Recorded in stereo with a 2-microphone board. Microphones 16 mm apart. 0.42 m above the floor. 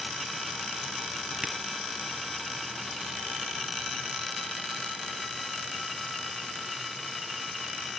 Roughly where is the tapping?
Right.